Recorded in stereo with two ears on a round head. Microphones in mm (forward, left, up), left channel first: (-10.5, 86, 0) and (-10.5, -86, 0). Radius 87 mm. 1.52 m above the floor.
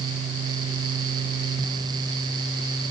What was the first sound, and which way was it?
Only background noise.